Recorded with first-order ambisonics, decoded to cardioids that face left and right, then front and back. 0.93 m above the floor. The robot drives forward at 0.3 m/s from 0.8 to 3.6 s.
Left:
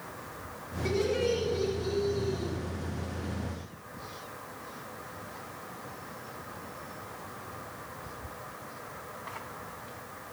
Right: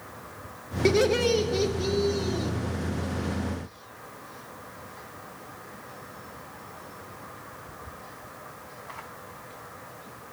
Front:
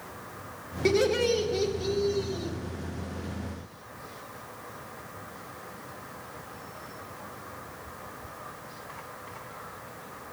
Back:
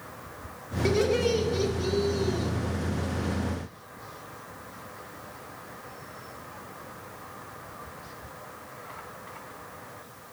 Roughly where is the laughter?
Right.